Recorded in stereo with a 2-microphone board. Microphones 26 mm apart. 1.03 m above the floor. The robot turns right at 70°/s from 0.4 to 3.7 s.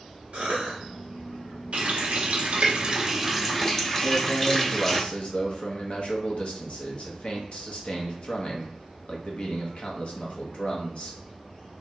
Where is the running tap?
115° right, 0.6 m; by 5.0 s 25° left, 0.6 m.